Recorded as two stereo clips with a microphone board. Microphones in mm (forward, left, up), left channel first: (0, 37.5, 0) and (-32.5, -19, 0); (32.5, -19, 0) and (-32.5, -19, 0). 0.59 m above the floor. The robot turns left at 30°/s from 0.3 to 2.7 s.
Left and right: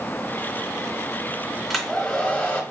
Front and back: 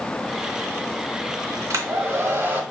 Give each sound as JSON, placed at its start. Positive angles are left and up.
{"t": 1.7, "sound": "a hair dryer", "azimuth_deg": 155, "distance_m": 1.1}